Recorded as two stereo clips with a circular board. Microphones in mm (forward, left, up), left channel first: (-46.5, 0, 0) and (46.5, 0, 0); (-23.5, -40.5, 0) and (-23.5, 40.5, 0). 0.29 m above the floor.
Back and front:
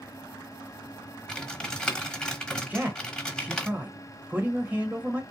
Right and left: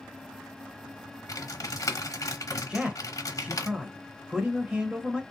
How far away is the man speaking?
About 0.9 m.